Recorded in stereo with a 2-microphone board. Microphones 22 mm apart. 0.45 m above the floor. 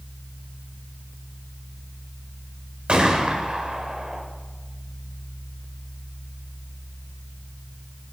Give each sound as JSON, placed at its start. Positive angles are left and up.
{"t": 2.9, "sound": "a gunshot", "side_deg": -50, "distance_m": 1.1}